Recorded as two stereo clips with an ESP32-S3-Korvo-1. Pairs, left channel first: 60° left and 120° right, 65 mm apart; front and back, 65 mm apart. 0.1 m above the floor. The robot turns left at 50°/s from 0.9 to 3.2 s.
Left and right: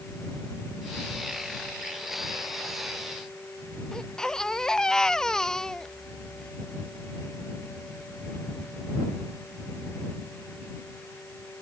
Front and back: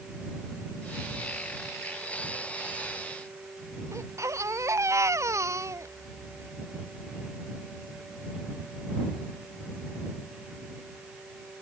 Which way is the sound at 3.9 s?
140° left.